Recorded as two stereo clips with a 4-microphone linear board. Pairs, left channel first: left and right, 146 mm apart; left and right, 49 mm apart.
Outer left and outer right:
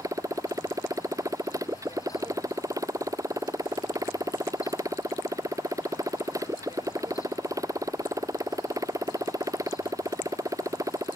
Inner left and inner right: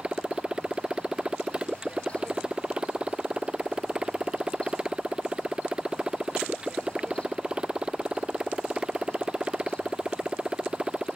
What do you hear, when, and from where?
0.0 s a motorcycle: 20° right (ahead or behind)